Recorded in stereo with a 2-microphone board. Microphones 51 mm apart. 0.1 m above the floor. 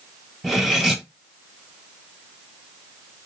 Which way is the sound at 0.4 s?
Centre (ahead or behind).